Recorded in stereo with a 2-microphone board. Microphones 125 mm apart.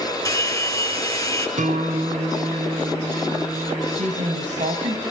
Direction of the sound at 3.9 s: 75° right (ahead or behind).